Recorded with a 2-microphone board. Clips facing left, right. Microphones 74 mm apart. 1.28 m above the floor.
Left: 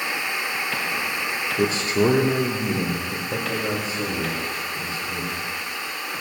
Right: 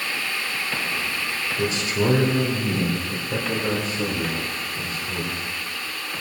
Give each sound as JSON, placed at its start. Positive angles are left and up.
{"t": 1.6, "sound": "a man speaking", "side_deg": 45, "distance_m": 1.7}